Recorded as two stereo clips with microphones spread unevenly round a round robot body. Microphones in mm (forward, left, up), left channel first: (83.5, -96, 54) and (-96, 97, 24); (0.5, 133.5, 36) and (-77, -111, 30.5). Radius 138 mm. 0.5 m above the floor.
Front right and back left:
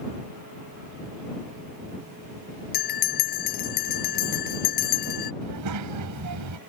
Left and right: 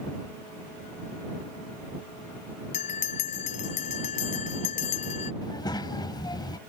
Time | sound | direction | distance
2.7 | a bell | 5° left | ?
5.4 | a child speaking | 145° left | ?